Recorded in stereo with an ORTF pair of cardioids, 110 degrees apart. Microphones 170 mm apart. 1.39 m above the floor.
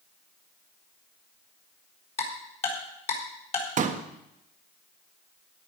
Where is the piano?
No piano in this recording.